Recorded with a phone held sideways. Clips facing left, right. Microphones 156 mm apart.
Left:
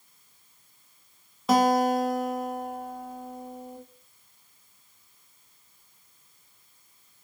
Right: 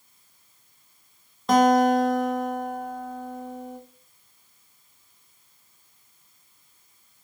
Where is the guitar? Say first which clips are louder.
Right 4 dB; 5° left (ahead or behind), 0.6 m.